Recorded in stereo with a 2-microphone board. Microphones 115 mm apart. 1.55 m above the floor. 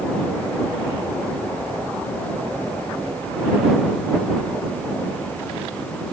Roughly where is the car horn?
I don't hear a car horn.